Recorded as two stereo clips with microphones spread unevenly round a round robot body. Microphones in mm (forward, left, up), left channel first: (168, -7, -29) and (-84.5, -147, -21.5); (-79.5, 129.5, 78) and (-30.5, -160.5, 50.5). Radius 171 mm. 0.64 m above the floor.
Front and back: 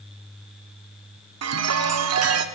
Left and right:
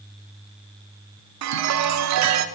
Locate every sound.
1.4 s a chime: 115° right, 0.7 m